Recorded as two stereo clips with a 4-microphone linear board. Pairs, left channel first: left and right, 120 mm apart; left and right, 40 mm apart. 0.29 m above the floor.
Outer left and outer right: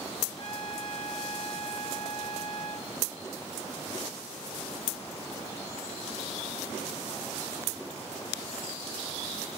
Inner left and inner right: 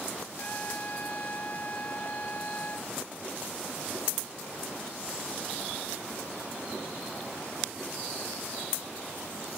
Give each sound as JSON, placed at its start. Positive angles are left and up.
{"t": 0.4, "sound": "a trumpet", "side_deg": 45}